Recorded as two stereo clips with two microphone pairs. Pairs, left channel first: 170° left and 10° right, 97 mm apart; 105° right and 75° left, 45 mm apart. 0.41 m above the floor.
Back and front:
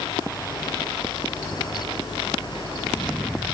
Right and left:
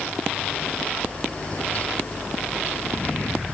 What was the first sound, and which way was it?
Only background noise.